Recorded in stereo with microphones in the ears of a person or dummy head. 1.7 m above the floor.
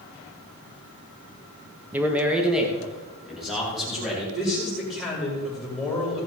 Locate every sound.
1.9 s a man speaking: 10° right (ahead or behind), 1.1 m; by 4.2 s centre (ahead or behind), 4.5 m
4.3 s a man speaking: centre (ahead or behind), 5 m